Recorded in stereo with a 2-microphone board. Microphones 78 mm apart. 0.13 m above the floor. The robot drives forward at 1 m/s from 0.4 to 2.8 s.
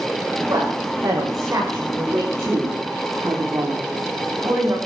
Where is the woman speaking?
45° right (ahead or behind), 9.5 m; by 4.8 s 40° right (ahead or behind), 11 m.